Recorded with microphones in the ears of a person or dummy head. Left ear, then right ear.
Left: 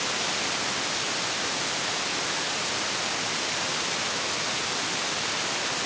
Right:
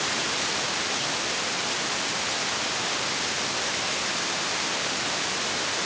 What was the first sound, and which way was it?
Only background noise.